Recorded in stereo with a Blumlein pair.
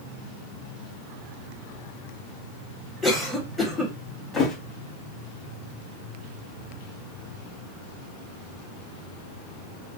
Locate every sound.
3.0 s a cough: 5° left, 0.6 m
4.3 s a thud: 20° left, 0.9 m